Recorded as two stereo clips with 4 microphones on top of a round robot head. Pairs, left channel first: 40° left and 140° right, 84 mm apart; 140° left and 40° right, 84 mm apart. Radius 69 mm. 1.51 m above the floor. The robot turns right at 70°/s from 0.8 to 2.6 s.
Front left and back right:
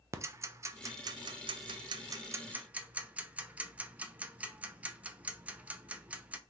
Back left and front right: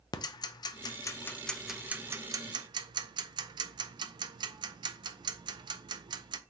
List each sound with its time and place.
0.1 s ticking: 170° left, 0.5 m; by 6.4 s 65° right, 0.5 m